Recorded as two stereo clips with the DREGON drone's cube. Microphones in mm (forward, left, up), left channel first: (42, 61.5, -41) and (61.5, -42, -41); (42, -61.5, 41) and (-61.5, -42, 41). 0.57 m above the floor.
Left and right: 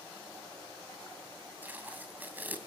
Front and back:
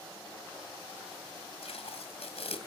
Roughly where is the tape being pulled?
Ahead.